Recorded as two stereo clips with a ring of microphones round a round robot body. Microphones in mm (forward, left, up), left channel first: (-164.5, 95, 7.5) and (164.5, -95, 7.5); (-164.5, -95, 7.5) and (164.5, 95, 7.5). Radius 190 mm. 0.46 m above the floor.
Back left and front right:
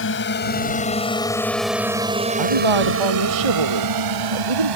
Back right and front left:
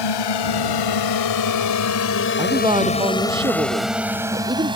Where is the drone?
155° right; by 4.8 s 45° right.